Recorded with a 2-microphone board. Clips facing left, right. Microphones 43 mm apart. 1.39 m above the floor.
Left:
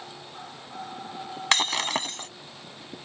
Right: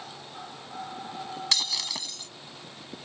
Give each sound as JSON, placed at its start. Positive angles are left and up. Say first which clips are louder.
{"t": 1.5, "sound": "breaking glass", "louder": "left 8 dB", "side_deg": 50}